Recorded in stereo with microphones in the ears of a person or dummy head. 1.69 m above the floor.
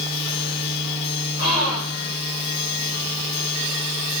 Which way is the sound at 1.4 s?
50° left (ahead or behind).